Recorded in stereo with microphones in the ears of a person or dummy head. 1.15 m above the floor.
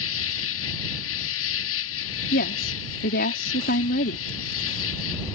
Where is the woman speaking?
50° left (ahead or behind).